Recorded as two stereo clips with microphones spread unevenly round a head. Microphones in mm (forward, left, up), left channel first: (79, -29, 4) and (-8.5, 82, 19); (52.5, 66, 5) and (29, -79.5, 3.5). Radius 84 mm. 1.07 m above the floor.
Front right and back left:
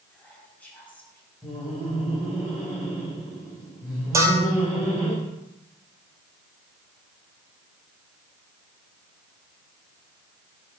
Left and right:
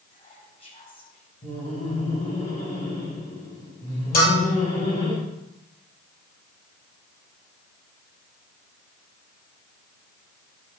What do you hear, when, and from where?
0.1 s whispering: 30° left, 5.5 m
1.4 s laughter: 35° left, 6.5 m
4.1 s a bell: 60° left, 5 m